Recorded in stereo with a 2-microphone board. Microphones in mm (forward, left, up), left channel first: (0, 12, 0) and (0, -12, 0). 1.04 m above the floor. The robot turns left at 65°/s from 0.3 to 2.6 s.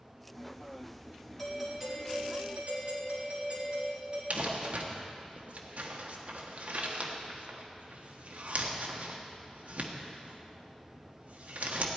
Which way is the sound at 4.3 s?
65° right (ahead or behind).